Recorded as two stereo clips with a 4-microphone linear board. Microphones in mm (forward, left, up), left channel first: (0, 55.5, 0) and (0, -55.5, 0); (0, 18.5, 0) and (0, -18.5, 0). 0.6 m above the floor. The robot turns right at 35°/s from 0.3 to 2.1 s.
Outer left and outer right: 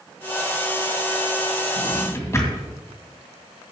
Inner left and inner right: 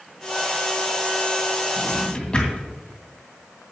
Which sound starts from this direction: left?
A drawer, at 1.8 s.